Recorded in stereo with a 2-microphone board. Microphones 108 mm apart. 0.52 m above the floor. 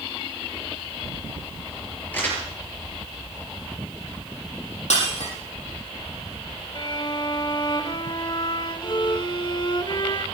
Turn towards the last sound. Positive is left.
turn(degrees=45)  # may be behind; listen again after turning